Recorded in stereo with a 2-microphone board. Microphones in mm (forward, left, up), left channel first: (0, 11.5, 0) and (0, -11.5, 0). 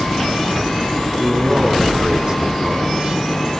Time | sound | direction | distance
1.2 | a man speaking | 45° right (ahead or behind) | 5.5 m